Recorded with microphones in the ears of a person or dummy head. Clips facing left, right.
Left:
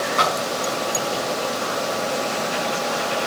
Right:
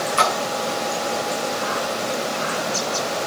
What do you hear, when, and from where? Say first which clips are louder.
0.2 s a splash: right 1 dB; 40° right (ahead or behind), 2 m